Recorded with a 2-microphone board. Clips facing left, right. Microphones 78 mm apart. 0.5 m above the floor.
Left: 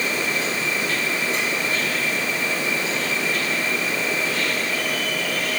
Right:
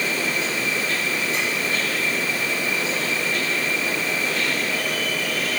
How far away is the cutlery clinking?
I don't hear cutlery clinking.